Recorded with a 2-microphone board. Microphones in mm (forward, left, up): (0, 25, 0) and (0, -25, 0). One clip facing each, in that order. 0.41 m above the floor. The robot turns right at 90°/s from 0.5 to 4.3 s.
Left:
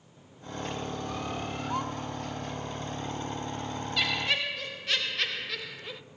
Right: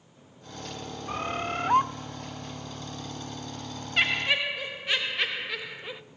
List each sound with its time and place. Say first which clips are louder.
1.1 s a bird: right 4 dB; 135° right, 1.0 m; by 1.9 s 65° right, 1.0 m
4.0 s laughter: right 4 dB; 55° right, 1.5 m; by 6.0 s 25° right, 1.5 m